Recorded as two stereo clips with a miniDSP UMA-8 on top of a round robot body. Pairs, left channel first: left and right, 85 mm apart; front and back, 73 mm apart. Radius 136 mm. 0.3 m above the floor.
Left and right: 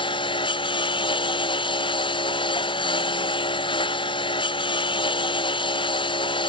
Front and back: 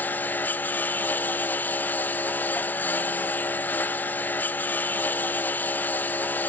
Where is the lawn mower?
65° left.